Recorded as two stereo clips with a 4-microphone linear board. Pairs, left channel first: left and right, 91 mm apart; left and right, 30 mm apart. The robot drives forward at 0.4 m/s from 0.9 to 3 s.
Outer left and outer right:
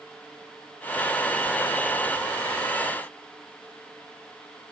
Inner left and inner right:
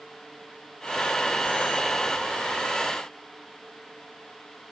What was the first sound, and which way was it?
Only background noise.